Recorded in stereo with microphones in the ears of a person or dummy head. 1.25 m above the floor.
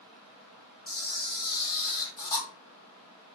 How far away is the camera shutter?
About 1.2 m.